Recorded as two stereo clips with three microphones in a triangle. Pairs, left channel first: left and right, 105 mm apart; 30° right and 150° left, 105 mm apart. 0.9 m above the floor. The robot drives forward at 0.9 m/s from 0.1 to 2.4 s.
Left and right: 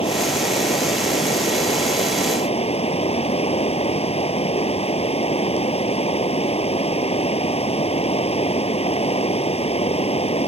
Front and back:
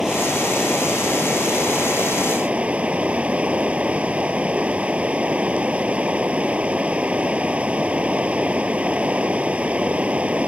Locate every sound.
0.0 s running water: 65° left; by 10.5 s 70° left